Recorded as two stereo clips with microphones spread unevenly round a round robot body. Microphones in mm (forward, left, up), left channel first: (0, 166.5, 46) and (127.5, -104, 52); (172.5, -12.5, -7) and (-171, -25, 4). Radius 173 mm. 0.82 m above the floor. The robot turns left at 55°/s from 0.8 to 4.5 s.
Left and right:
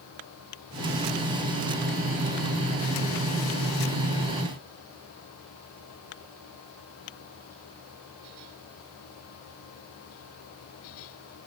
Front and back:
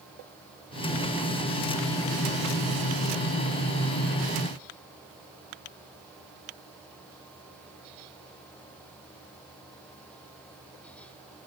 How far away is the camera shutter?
I don't hear a camera shutter.